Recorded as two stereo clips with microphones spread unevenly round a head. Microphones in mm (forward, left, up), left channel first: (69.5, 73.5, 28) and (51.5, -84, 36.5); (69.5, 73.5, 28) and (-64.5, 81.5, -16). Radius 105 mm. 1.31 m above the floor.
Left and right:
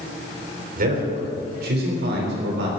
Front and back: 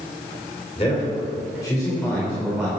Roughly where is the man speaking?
Ahead right.